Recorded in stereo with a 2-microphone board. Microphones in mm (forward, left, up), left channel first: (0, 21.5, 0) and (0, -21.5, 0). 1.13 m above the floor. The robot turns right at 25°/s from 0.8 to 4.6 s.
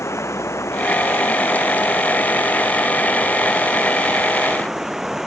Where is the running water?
90° left; by 5.3 s 175° right.